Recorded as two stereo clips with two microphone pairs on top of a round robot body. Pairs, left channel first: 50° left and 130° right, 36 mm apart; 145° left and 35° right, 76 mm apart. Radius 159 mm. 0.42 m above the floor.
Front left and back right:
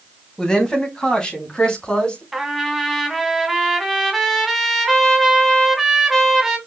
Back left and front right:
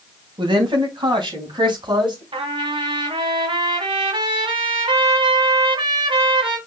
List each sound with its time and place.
0.4 s a woman speaking: 20° right, 3.5 m; by 2.2 s 15° right, 4.5 m
2.3 s a trumpet: 45° right, 2.0 m